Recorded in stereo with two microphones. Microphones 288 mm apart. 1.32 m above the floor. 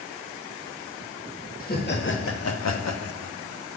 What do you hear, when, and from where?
1.6 s laughter: 30° left (ahead or behind), 1.0 m; by 3.3 s 45° left (ahead or behind), 0.7 m